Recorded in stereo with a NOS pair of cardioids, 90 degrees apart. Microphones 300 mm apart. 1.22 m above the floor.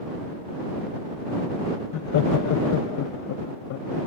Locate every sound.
1.9 s laughter: 70° left; by 4.0 s 80° left